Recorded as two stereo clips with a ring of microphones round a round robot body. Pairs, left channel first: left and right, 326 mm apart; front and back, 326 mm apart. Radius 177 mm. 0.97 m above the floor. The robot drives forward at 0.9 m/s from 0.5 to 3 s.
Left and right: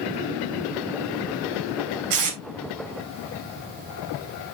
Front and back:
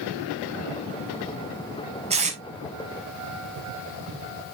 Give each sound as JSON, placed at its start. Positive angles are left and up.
{"t": 2.1, "sound": "tape being pulled", "azimuth_deg": -110, "distance_m": 3.5}